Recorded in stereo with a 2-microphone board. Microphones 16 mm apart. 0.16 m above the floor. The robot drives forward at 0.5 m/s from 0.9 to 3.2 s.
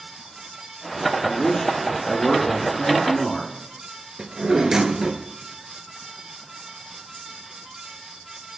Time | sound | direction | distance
1.2 | a man speaking | 55° left (ahead or behind) | 2.5 m
4.2 | a drawer | 55° right (ahead or behind) | 1.7 m